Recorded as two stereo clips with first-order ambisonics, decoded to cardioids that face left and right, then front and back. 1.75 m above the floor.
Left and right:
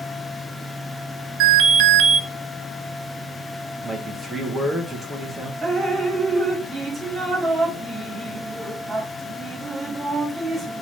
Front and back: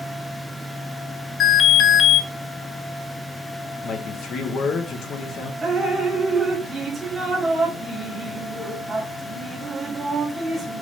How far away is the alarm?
About 0.5 m.